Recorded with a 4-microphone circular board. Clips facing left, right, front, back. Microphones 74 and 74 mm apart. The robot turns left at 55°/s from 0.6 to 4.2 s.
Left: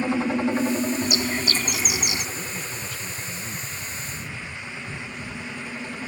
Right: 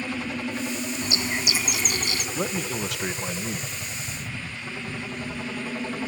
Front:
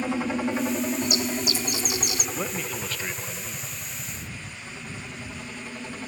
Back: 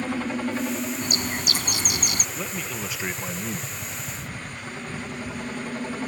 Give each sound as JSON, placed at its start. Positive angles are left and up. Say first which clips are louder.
{"t": 0.0, "sound": "a helicopter", "louder": "left 7 dB, front 1 dB", "azimuth_deg": 70}
{"t": 1.0, "sound": "a bird", "louder": "left 3 dB, front 2 dB", "azimuth_deg": -140}
{"t": 2.4, "sound": "a man speaking", "louder": "right 6 dB, front 1 dB", "azimuth_deg": -70}